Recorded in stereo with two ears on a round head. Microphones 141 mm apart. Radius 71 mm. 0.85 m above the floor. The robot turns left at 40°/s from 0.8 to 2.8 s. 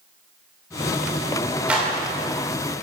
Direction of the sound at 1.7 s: 10° right (ahead or behind).